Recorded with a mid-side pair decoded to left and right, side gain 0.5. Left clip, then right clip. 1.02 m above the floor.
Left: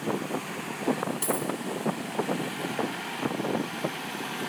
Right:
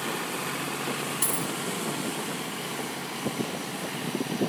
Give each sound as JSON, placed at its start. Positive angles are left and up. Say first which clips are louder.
{"t": 1.2, "sound": "a dropped coin", "louder": "left 1 dB", "azimuth_deg": -30, "distance_m": 4.0}